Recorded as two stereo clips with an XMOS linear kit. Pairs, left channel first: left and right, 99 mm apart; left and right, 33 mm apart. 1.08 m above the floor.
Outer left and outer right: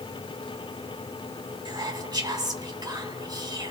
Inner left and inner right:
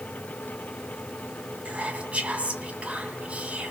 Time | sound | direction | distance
1.6 | whispering | 40° right (ahead or behind) | 2 m